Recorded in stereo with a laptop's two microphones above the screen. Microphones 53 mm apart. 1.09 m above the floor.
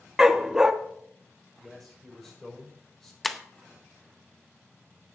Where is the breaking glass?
Centre (ahead or behind), 0.6 m.